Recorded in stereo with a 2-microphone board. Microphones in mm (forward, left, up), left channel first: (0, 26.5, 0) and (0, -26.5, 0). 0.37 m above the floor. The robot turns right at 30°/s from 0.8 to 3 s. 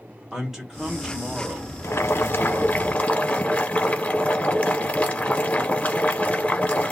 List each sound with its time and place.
0.3 s a man speaking: 165° right, 1.3 m; by 2.8 s 105° right, 1.3 m
1.8 s boiling: 115° left, 0.9 m; by 6.9 s 150° left, 0.9 m